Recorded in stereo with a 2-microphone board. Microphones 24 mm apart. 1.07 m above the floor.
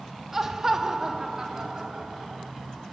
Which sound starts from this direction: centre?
Laughter, at 0.3 s.